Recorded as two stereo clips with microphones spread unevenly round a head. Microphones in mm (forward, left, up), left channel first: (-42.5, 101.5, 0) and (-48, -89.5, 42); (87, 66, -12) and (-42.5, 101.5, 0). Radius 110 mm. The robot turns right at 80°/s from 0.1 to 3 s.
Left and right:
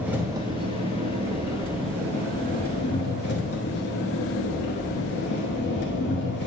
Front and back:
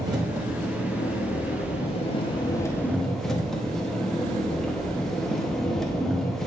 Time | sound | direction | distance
0.0 | an engine running | 155° right | 1.1 m